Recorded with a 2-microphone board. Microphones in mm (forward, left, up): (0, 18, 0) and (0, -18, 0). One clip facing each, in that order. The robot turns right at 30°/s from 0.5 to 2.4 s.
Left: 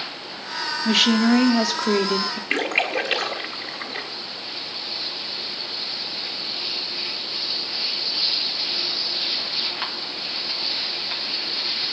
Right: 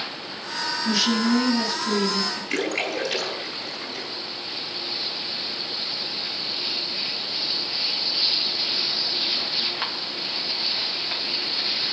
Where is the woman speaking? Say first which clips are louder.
Left 5 dB; 45° left, 2 m; by 2.4 s 90° left, 2 m.